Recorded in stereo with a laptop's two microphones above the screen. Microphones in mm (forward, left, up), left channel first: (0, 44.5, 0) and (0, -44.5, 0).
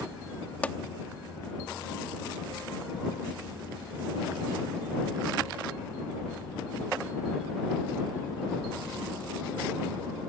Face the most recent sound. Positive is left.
turn(degrees=15)  # may be behind; listen again after turning